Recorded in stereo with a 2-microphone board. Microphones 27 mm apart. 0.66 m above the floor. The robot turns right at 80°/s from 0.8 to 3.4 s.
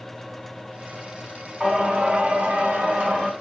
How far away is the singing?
About 2 m.